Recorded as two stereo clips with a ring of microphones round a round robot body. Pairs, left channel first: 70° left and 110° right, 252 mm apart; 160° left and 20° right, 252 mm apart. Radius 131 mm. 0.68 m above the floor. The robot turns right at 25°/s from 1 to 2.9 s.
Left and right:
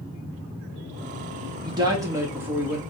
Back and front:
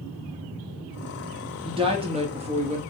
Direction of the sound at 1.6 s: 65° right.